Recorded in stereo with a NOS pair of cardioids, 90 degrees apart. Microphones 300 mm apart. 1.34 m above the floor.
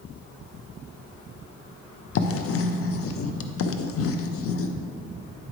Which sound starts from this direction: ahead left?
Writing, at 2.1 s.